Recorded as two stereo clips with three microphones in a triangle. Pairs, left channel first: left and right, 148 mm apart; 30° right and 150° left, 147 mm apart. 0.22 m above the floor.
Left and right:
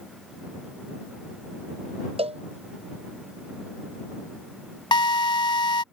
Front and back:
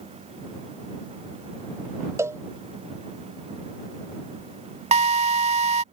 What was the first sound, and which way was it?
A cowbell, 135° right.